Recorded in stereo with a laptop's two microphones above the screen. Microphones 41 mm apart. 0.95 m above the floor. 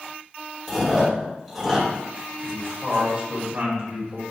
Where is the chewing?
5° left (ahead or behind), 1.2 m.